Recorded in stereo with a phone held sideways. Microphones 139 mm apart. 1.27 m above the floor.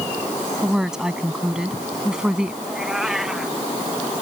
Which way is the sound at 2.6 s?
5° right (ahead or behind).